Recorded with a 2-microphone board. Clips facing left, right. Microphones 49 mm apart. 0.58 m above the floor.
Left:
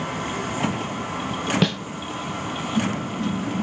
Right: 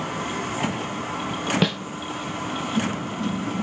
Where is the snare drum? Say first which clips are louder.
Left 1 dB; 5° right (ahead or behind), 0.5 m.